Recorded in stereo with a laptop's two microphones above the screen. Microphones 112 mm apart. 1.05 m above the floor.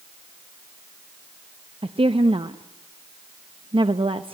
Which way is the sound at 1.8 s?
55° right (ahead or behind).